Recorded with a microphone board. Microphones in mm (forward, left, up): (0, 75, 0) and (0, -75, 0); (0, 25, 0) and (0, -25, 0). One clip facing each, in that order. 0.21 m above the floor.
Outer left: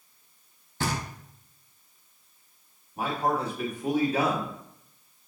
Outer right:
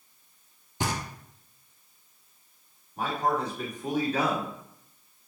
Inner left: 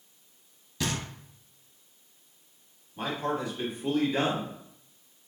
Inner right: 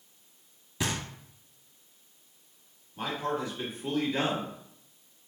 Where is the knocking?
15° right (ahead or behind), 0.7 m.